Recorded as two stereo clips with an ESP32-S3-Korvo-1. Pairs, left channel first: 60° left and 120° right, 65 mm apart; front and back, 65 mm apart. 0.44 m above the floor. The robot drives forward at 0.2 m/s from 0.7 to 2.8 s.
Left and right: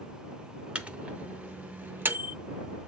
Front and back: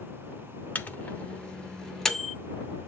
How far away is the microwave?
About 0.7 m.